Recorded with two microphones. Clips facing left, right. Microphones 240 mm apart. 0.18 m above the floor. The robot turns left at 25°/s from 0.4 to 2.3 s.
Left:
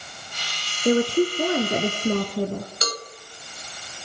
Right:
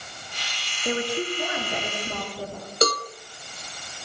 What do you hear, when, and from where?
0.8 s a woman speaking: 140° left, 2 m; by 2.7 s 100° left, 2 m
2.8 s a cowbell: 55° right (ahead or behind), 1.5 m